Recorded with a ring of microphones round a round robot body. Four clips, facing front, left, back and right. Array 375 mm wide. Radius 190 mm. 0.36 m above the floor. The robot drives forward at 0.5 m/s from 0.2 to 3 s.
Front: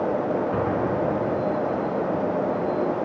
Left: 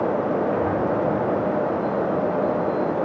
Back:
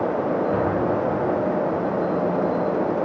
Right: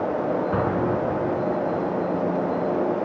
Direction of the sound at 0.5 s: 95° right.